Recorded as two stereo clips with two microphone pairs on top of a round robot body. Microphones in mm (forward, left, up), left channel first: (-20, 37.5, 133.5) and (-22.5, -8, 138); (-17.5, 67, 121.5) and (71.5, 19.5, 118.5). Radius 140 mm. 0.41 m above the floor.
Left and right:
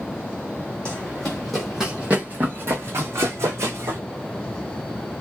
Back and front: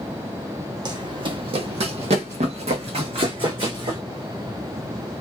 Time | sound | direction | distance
0.8 | running footsteps | 15° left | 1.1 m